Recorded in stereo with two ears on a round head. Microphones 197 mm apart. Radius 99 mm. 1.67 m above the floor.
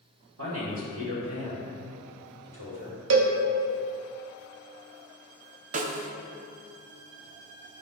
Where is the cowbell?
60° right (ahead or behind), 0.8 m.